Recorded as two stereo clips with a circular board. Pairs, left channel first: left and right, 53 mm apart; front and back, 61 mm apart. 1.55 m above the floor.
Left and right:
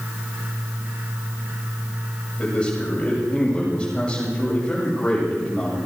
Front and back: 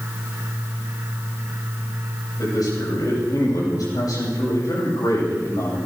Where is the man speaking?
20° left, 8 m.